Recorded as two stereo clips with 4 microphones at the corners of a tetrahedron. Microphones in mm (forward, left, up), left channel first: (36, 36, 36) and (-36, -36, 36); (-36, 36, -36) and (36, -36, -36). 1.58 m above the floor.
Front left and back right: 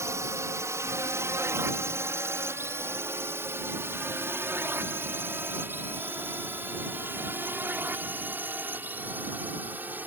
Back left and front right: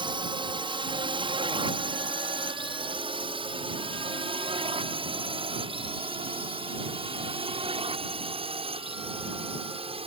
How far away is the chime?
No chime in this recording.